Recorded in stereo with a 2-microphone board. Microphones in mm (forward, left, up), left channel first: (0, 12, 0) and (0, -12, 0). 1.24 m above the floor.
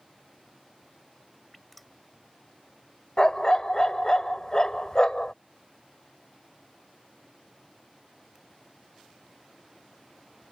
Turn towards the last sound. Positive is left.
turn(degrees=35)  # may be behind; listen again after turning